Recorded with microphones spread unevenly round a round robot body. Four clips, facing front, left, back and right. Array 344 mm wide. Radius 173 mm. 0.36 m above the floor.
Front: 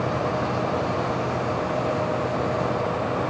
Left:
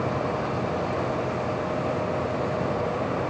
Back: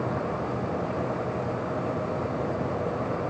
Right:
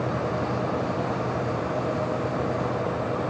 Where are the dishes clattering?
No dishes clattering in this recording.